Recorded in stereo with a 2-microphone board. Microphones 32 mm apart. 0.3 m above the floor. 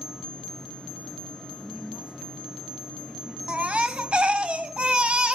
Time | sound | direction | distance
1.6 | a woman speaking | 40° right (ahead or behind) | 3.5 m
3.5 | a baby crying | 40° right (ahead or behind) | 0.8 m